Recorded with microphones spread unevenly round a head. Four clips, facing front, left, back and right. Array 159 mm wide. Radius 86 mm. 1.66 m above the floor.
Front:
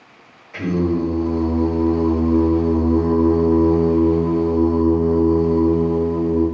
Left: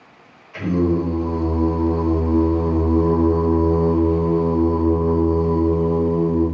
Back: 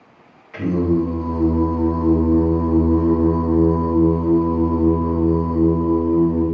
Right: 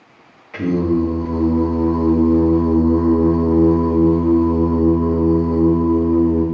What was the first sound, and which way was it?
Singing, 100° right.